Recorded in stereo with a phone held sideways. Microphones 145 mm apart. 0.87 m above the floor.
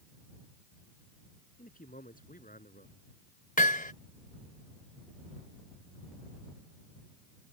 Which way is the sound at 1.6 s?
75° left (ahead or behind).